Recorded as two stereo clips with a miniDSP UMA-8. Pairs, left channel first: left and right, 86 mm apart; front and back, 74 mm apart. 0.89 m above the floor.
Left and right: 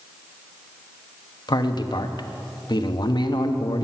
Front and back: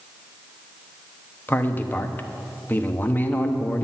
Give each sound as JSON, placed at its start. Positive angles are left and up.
{"t": 1.5, "sound": "a man speaking", "azimuth_deg": 65, "distance_m": 0.9}